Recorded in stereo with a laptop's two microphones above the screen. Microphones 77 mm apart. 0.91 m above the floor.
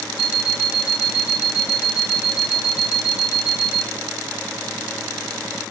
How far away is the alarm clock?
About 1.2 m.